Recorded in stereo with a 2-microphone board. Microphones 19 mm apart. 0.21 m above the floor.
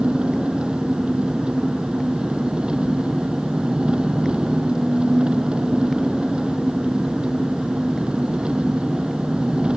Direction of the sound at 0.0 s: 65° right (ahead or behind).